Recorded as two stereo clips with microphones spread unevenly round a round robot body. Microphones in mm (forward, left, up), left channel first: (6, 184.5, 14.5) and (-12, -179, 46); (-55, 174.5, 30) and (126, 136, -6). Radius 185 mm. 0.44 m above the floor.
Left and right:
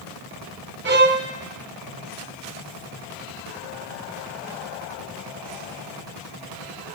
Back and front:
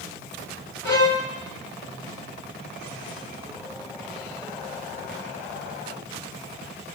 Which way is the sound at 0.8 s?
155° right.